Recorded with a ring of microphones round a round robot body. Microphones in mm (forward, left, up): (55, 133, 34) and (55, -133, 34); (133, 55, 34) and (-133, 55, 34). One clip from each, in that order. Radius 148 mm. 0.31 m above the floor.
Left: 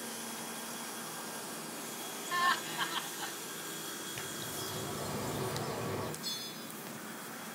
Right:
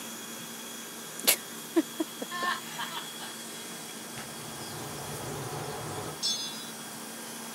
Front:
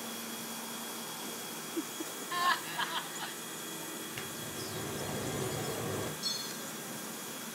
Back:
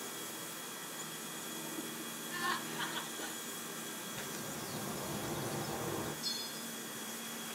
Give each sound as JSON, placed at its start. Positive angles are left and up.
{"t": 2.3, "sound": "laughter", "azimuth_deg": 20, "distance_m": 2.5}
{"t": 4.2, "sound": "a bird", "azimuth_deg": 30, "distance_m": 4.5}
{"t": 6.2, "sound": "a bell", "azimuth_deg": -80, "distance_m": 0.8}